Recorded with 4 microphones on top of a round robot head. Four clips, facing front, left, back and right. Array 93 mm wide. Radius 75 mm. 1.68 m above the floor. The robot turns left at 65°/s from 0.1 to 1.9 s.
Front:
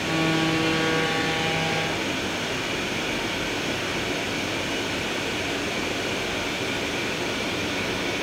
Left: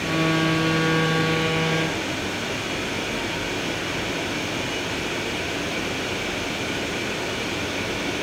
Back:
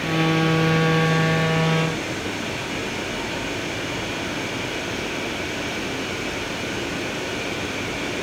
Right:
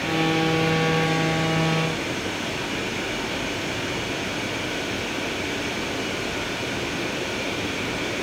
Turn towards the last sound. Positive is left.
No sound to turn to.